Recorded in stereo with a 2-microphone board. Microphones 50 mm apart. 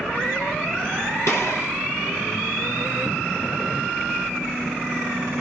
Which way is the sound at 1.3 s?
70° left (ahead or behind).